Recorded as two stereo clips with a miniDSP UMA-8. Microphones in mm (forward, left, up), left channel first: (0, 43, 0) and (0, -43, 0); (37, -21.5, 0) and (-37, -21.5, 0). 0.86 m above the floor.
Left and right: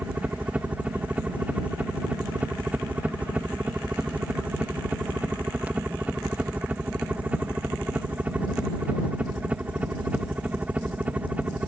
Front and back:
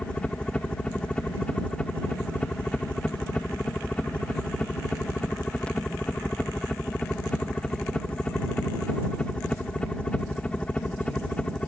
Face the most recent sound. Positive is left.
turn(degrees=-50)